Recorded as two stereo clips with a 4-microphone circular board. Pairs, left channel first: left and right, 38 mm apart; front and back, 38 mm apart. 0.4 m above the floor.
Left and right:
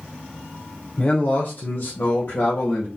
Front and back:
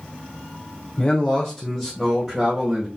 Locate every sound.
1.0 s a man speaking: 50° left, 1.0 m; by 2.9 s 115° left, 1.6 m